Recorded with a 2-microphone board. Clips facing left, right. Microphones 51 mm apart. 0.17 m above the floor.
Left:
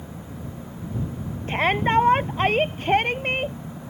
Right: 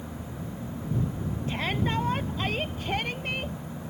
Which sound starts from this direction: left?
A shout, at 1.5 s.